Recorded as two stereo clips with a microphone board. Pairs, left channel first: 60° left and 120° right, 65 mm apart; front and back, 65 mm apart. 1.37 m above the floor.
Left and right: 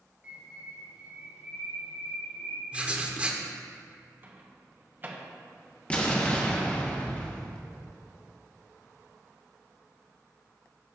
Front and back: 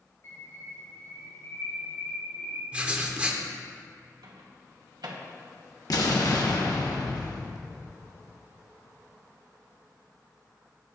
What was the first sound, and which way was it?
A bird, 50° right.